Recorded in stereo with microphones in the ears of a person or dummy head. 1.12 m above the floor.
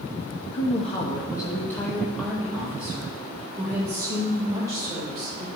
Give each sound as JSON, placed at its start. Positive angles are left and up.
{"t": 0.5, "sound": "a woman speaking", "side_deg": 40, "distance_m": 0.9}